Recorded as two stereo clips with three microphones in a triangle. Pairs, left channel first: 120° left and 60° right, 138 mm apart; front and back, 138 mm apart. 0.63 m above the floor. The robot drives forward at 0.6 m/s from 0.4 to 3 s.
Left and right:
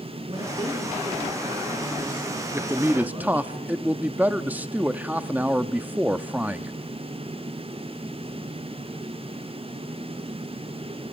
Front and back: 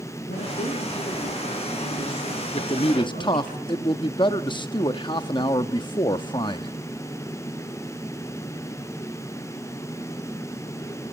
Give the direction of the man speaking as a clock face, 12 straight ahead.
12 o'clock.